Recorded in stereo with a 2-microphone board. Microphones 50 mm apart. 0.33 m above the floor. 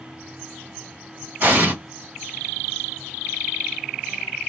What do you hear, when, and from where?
1.4 s an explosion: 40° right (ahead or behind), 2 m